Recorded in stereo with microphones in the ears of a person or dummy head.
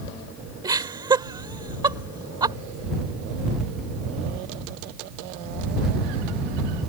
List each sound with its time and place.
0.6 s laughter: 20° right (ahead or behind)